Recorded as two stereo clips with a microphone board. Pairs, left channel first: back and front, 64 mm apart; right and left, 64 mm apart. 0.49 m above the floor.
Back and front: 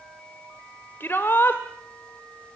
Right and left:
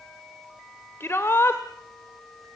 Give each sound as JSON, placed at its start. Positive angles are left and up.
{"t": 1.0, "sound": "a shout", "azimuth_deg": -130, "distance_m": 1.5}